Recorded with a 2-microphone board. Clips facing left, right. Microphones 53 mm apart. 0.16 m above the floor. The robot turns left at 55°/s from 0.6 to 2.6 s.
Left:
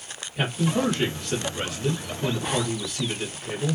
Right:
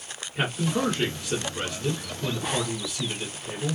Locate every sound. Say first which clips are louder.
0.3 s a man speaking: left 2 dB; 130° right, 1.5 m; by 3.8 s 120° left, 1.5 m